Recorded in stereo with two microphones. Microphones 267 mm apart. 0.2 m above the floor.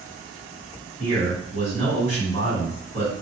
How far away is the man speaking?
About 1.6 m.